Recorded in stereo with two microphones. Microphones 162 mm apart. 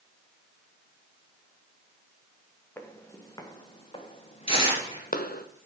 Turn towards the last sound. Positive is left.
turn(degrees=35)  # may be behind; listen again after turning